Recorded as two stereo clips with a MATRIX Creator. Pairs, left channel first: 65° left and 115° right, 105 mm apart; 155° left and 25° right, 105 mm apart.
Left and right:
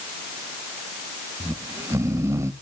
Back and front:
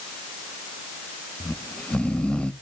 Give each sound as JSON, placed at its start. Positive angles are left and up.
{"t": 1.4, "sound": "snoring", "azimuth_deg": -135, "distance_m": 0.7}